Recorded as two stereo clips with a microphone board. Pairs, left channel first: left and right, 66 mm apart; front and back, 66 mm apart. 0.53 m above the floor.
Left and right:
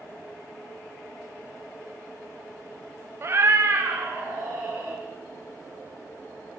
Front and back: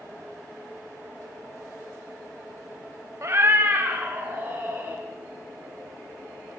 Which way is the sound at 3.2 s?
135° right.